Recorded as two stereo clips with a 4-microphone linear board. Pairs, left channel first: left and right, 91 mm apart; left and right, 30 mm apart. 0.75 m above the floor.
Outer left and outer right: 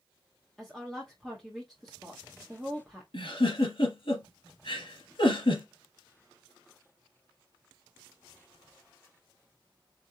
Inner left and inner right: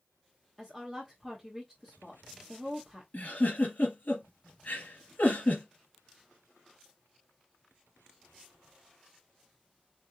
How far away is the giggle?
About 2.5 m.